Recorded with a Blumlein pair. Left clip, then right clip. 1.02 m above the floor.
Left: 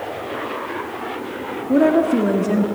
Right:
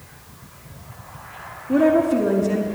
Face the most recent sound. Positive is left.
turn(degrees=15)